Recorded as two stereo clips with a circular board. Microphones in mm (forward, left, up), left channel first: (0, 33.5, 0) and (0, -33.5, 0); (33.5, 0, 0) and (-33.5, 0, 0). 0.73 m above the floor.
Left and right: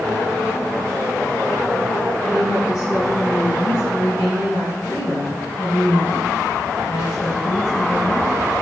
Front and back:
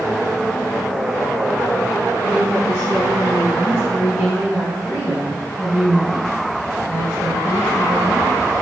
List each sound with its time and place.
2.2 s a woman speaking: 120° left, 6.5 m; by 8.3 s 90° left, 4 m